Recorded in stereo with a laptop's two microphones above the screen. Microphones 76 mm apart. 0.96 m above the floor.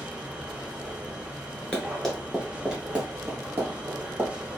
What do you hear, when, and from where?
0.0 s a machine running: 15° right (ahead or behind), 0.7 m
1.7 s running footsteps: 15° left (ahead or behind), 0.9 m; by 4.3 s 35° right (ahead or behind), 1.6 m